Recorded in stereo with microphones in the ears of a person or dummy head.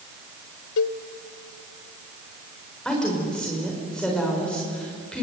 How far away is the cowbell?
About 0.6 m.